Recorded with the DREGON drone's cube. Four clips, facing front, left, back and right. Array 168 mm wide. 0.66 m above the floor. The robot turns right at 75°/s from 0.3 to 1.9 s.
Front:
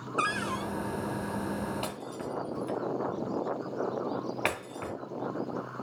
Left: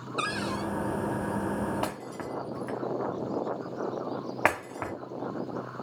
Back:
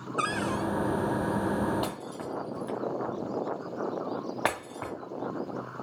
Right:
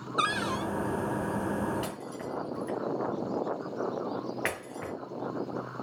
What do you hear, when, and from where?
0.2 s a cupboard door: 85° right, 1.0 m; by 0.7 s 55° right, 1.0 m
1.8 s breaking glass: 110° left, 2.5 m; by 4.9 s 115° left, 2.5 m